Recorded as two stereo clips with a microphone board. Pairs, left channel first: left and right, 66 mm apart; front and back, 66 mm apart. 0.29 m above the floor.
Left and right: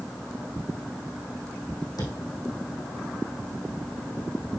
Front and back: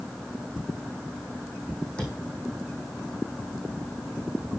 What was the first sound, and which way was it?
A thud, 75° left.